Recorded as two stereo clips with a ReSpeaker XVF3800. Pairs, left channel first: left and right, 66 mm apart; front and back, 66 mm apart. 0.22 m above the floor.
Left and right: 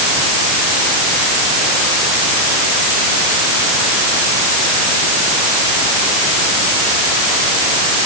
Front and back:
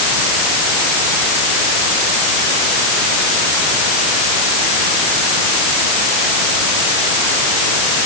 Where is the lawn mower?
I don't hear a lawn mower.